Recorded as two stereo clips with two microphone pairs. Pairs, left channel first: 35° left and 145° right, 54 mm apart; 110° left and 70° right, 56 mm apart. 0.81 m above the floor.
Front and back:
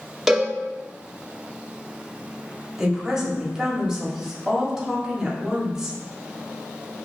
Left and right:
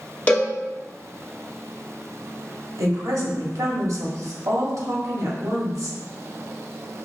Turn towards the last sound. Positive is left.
turn(degrees=-65)